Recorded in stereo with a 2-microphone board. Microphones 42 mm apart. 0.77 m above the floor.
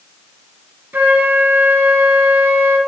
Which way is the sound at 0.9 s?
50° right (ahead or behind).